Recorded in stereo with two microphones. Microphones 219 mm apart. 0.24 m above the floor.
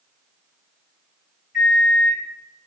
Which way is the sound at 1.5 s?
50° left (ahead or behind).